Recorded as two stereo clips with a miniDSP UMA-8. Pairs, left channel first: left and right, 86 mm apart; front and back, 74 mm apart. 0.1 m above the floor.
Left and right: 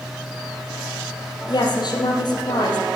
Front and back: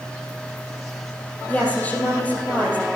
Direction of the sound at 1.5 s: 70° left.